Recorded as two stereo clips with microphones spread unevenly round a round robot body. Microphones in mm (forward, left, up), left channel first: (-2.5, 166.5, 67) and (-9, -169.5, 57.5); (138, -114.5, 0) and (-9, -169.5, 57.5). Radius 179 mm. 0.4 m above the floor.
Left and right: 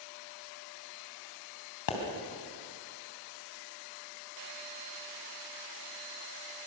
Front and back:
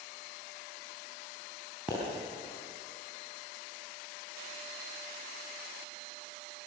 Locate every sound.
1.9 s a pop: 110° left, 3.5 m